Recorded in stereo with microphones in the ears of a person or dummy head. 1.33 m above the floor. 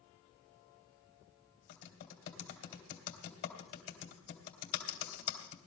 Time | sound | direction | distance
1.7 | typing on a keyboard | 70° left (ahead or behind) | 2.5 m